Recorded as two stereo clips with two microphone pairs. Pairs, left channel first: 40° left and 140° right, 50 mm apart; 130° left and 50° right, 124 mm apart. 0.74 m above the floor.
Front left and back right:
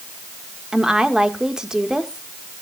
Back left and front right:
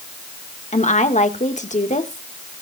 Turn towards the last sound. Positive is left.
turn(degrees=145)